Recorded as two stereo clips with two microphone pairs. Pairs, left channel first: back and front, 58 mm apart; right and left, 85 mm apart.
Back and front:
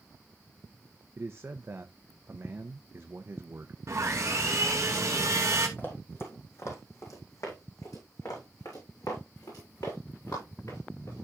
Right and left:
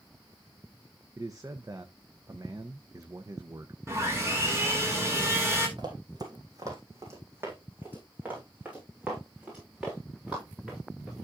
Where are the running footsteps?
125° left, 3 m; by 11.2 s straight behind, 8.5 m.